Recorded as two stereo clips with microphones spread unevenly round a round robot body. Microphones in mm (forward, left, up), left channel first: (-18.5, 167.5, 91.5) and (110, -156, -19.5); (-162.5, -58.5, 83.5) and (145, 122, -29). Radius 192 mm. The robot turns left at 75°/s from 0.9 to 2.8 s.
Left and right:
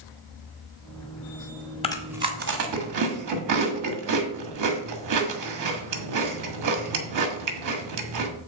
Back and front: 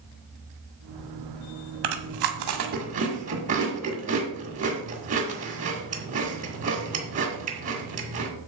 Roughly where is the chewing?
Ahead left.